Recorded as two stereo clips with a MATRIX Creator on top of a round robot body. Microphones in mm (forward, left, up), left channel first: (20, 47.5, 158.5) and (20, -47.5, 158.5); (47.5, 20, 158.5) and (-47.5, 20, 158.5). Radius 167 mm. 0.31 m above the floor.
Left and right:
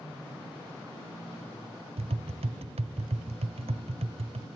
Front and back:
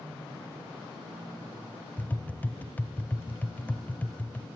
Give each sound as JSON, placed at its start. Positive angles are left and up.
{"t": 2.0, "sound": "tapping", "azimuth_deg": -75, "distance_m": 0.7}